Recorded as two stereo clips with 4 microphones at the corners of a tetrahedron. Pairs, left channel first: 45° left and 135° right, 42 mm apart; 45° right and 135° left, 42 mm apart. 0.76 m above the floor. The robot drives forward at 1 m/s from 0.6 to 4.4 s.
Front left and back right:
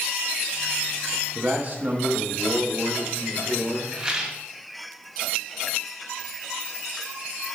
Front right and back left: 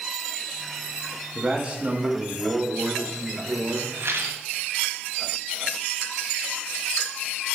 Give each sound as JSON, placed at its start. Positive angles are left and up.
{"t": 1.4, "sound": "a man speaking", "azimuth_deg": -160, "distance_m": 1.3}
{"t": 4.0, "sound": "a rattle", "azimuth_deg": 155, "distance_m": 1.6}